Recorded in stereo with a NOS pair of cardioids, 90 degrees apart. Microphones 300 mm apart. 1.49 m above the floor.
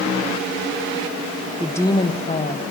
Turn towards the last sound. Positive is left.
turn(degrees=30)